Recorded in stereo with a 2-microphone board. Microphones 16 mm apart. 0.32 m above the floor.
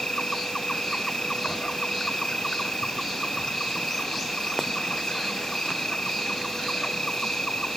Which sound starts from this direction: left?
An insect, at 0.0 s.